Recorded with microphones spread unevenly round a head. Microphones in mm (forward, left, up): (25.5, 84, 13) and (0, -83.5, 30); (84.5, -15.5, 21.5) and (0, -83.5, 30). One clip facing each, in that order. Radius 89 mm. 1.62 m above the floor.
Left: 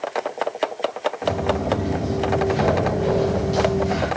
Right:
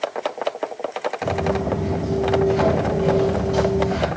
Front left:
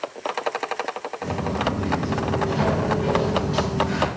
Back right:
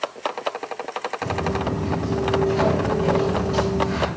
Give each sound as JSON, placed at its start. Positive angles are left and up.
{"t": 1.2, "sound": "footsteps", "azimuth_deg": -120, "distance_m": 1.6}